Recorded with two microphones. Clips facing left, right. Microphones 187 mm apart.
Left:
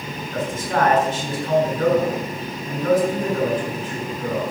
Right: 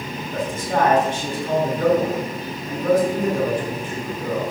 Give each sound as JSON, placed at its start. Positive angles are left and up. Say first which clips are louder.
{"t": 0.3, "sound": "a man speaking", "louder": "even", "side_deg": -15, "distance_m": 6.5}